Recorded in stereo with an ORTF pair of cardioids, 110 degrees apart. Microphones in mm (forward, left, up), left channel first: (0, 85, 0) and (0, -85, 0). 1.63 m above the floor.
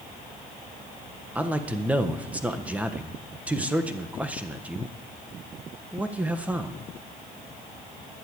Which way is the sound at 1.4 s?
10° right.